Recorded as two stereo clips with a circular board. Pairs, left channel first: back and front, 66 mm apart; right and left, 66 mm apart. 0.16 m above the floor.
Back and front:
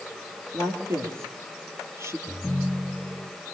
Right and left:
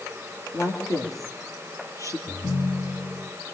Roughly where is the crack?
I don't hear a crack.